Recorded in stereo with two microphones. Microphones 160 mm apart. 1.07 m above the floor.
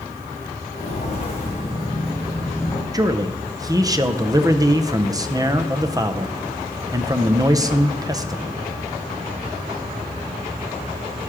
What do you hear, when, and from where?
0.7 s footsteps: 45° left (ahead or behind), 3.5 m; by 2.8 s 15° left (ahead or behind), 4 m
2.9 s a man speaking: 25° right (ahead or behind), 0.6 m